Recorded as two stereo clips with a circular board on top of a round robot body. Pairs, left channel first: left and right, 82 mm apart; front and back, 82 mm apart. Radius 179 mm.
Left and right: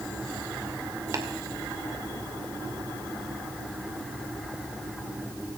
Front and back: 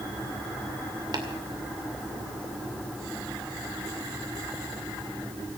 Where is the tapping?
140° right, 2 m.